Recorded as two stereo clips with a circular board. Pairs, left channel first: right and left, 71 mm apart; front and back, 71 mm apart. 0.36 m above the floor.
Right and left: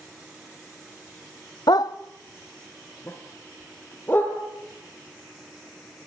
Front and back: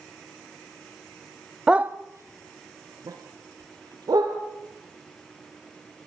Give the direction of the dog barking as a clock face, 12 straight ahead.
3 o'clock.